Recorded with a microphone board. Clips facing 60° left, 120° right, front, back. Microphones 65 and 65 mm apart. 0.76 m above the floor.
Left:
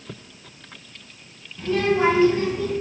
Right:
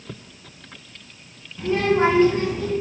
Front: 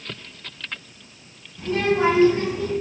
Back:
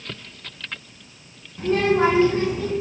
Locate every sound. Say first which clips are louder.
1.6 s a child speaking: right 1 dB, back 2 dB; 170° left, 0.8 m; by 2.7 s 135° right, 1.4 m